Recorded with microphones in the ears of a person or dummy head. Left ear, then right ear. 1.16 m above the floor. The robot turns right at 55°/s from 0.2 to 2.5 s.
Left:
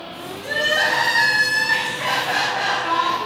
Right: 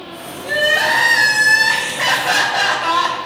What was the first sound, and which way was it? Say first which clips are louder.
Crying: right 4 dB; 175° left.